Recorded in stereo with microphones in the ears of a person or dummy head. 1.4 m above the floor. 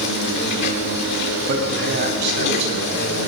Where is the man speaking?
45° right (ahead or behind), 7.5 m.